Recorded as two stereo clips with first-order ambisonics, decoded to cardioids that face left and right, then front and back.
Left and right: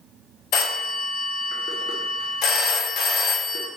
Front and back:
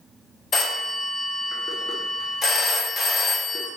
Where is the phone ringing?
65° left, 0.6 m.